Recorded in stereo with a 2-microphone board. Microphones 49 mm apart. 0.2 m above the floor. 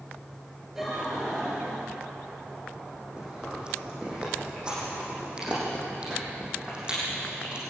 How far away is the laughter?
About 4 m.